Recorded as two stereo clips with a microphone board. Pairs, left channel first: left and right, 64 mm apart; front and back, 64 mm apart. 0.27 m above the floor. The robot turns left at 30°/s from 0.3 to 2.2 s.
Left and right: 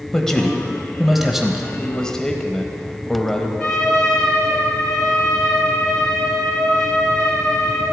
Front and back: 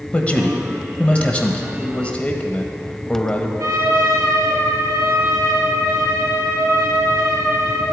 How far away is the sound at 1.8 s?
About 0.9 m.